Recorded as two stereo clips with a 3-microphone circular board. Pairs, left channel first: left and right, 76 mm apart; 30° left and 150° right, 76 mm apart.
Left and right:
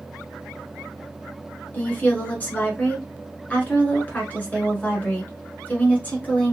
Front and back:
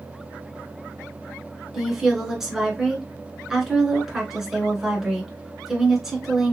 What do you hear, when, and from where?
1.7 s a woman speaking: 130° left, 1.4 m